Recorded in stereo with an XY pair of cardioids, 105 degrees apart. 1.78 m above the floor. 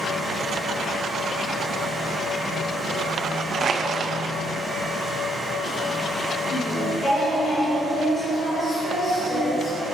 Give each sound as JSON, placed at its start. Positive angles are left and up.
{"t": 0.0, "sound": "a fan", "azimuth_deg": 0, "distance_m": 2.0}
{"t": 3.6, "sound": "crushing", "azimuth_deg": -40, "distance_m": 1.1}
{"t": 6.5, "sound": "singing", "azimuth_deg": 35, "distance_m": 2.5}